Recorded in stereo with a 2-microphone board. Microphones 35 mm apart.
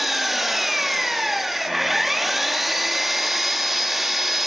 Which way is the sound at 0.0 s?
5° right (ahead or behind).